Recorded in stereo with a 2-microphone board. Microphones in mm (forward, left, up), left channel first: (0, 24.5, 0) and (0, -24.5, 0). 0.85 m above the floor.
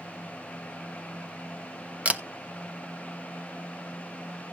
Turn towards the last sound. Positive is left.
turn(degrees=-30)  # may be behind; listen again after turning